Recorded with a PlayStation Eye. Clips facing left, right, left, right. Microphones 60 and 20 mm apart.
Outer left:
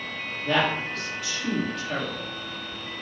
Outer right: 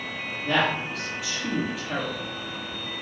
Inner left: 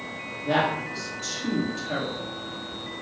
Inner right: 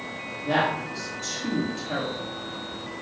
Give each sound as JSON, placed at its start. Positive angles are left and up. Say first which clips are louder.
{"t": 0.4, "sound": "a woman speaking", "louder": "even, even", "side_deg": -5, "distance_m": 1.3}